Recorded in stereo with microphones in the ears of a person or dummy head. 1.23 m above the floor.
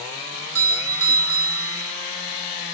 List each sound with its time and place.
0.3 s a doorbell: 70° right (ahead or behind), 2.5 m